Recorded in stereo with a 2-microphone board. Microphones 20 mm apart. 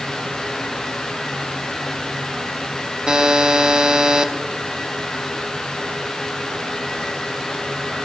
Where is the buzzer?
40° right (ahead or behind), 0.5 m.